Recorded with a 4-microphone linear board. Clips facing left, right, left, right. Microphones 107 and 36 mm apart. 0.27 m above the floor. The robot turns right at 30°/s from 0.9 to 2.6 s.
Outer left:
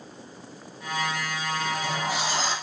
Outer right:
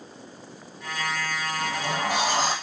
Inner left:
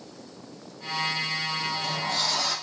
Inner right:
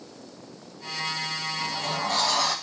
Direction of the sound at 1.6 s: 65° right (ahead or behind).